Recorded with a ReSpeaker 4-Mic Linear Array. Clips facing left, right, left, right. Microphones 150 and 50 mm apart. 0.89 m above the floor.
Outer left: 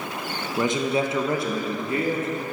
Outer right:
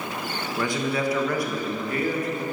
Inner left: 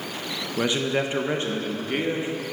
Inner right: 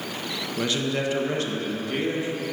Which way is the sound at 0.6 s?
20° left (ahead or behind).